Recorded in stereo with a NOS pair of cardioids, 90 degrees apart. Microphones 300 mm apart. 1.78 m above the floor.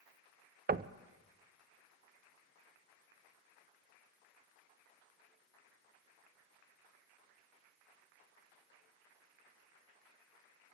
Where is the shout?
I don't hear a shout.